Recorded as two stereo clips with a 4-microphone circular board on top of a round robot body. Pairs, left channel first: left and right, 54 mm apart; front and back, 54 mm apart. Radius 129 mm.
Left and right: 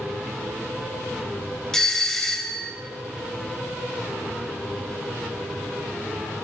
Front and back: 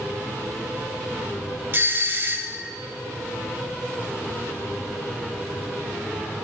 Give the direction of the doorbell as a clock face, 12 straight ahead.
7 o'clock.